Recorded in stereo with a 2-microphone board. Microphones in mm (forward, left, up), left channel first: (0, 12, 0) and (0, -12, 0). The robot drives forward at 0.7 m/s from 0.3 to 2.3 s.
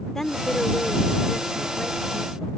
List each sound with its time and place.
0.1 s a woman speaking: 20° left (ahead or behind); by 2.5 s 10° left (ahead or behind)